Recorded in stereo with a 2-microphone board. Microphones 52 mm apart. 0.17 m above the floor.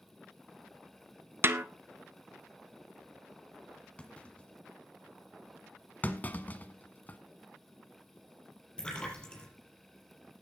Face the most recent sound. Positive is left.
turn(degrees=15)  # may be behind; listen again after turning